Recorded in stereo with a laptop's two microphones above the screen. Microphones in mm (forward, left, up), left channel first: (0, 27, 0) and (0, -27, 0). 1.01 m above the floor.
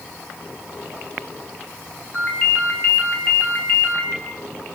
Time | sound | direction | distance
2.1 | a ringtone | 40° left (ahead or behind) | 5.5 m